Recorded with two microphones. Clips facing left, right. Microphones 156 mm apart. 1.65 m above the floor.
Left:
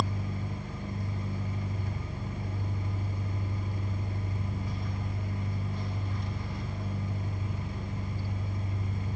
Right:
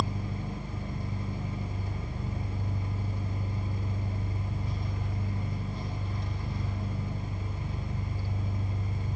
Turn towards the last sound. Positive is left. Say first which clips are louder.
# even
turn(degrees=-25)  # may be behind; listen again after turning